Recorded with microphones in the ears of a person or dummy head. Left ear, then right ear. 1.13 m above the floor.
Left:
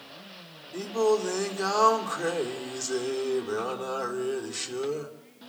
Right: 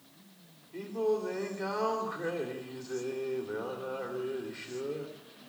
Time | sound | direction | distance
0.7 | singing | 85° left | 2.5 m